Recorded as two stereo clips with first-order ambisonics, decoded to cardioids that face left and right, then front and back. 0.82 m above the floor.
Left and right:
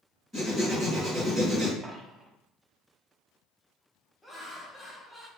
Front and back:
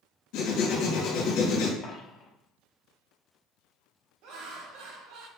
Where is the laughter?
175° left, 1.0 m.